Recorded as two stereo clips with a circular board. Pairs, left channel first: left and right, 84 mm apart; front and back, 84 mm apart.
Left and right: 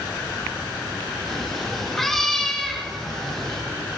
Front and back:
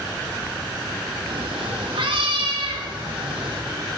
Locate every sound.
1.3 s a cat meowing: straight behind, 3 m; by 3.6 s 175° left, 4 m